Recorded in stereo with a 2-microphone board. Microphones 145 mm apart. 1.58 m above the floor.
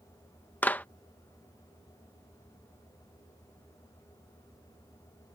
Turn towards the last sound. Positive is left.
turn(degrees=10)  # may be behind; listen again after turning